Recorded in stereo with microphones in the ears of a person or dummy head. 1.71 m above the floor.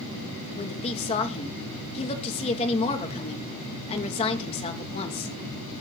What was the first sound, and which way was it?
A woman speaking, 30° left (ahead or behind).